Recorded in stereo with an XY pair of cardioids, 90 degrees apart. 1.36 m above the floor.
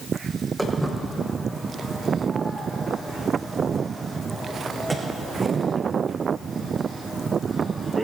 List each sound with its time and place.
0.6 s footsteps: 5° right, 5 m; by 8.0 s 40° right, 7.5 m